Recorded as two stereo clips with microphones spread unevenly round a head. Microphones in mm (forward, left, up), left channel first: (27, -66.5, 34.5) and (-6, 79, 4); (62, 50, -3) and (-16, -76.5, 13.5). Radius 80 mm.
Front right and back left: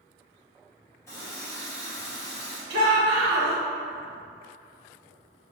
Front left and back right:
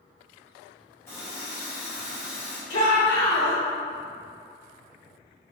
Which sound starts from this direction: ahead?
A running tap, at 1.1 s.